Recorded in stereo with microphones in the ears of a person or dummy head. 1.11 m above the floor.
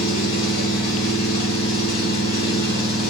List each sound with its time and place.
0.0 s an engine running: 75° left (ahead or behind), 1.9 m